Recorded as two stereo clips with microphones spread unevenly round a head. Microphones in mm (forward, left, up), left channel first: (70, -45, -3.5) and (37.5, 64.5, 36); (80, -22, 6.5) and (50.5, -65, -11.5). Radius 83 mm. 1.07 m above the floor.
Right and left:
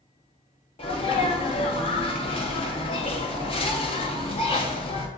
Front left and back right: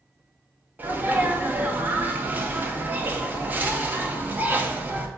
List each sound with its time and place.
0.8 s a sneeze: 90° right, 1.4 m